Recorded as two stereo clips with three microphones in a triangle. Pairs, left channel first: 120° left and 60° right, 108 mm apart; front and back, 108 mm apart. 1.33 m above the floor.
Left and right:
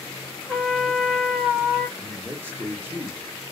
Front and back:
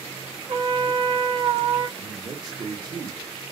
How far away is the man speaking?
About 1.2 m.